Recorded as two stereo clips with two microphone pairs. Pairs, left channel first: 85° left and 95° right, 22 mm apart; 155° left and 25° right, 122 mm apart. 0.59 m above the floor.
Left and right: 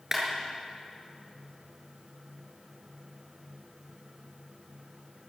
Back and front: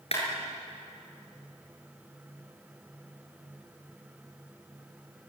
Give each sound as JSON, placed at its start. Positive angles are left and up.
{"t": 0.1, "sound": "a clap", "azimuth_deg": -170, "distance_m": 7.5}